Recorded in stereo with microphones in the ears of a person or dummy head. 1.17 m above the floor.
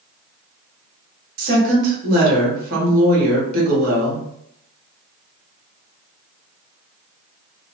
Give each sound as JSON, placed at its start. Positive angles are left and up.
{"t": 1.4, "sound": "a woman speaking", "side_deg": -55, "distance_m": 1.4}